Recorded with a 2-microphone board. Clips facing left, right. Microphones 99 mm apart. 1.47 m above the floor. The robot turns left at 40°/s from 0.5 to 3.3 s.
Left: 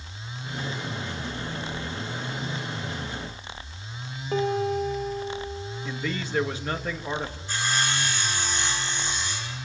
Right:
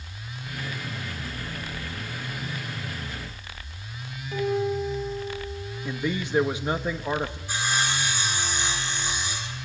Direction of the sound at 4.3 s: 50° left (ahead or behind).